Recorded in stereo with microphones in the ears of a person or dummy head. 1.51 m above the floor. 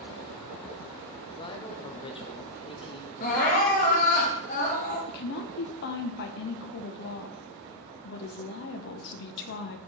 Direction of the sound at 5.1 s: 55° left (ahead or behind).